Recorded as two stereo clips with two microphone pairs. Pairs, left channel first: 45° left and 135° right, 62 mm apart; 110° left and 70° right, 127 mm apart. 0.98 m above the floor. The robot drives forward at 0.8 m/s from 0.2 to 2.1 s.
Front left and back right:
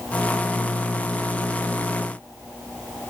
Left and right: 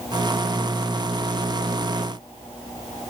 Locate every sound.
Only background noise.